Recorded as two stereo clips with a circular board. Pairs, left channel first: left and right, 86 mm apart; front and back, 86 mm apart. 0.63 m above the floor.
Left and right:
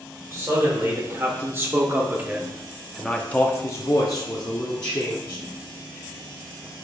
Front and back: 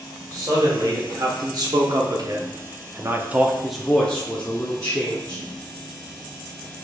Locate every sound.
0.3 s a man speaking: 145° right, 1.9 m; by 5.4 s 55° left, 1.3 m